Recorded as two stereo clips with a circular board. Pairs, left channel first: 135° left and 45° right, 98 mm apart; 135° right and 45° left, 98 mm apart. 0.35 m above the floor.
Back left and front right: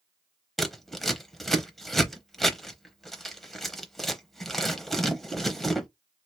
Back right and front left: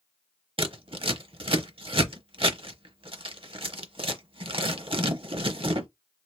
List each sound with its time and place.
0.6 s scissors: 45° left, 0.7 m